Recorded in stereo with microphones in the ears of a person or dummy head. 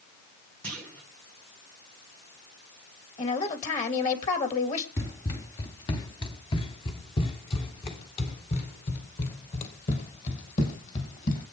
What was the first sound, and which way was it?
A clunk, 5° left (ahead or behind).